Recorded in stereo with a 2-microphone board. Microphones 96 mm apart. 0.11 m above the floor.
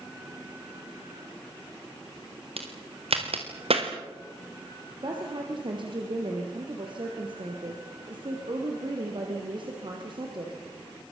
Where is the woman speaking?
55° right (ahead or behind), 4.5 m.